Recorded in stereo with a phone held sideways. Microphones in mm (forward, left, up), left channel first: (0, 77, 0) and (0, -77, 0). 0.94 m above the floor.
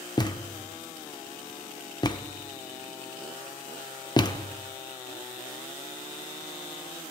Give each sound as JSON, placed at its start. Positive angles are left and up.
{"t": 0.2, "sound": "a thud", "side_deg": 25, "distance_m": 0.7}